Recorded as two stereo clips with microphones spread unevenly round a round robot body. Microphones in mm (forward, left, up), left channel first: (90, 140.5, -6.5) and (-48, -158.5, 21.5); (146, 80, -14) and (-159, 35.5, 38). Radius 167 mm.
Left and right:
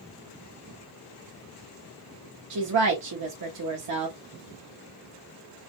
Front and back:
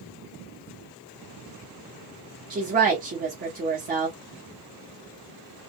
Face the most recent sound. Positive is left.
turn(degrees=-110)